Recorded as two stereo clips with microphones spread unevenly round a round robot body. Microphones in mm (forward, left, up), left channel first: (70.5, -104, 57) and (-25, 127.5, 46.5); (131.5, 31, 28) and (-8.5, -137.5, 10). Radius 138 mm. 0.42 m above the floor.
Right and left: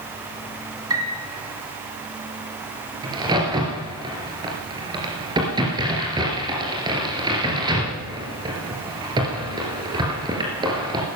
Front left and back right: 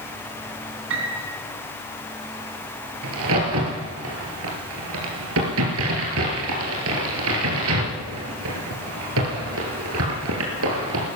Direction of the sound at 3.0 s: 170° right.